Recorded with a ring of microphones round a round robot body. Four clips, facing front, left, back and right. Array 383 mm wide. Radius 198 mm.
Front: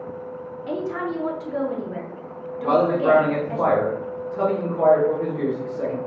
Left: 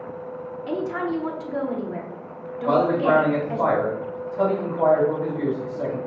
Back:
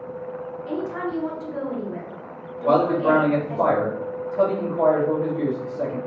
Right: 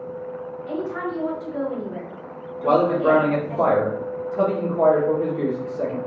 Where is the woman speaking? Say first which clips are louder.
Left 2 dB, front 1 dB; 60° left, 1.5 m.